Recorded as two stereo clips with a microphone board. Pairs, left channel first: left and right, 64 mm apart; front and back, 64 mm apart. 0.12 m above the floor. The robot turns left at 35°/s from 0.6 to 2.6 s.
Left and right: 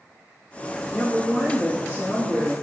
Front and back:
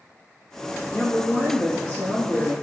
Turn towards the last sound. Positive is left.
turn(degrees=-100)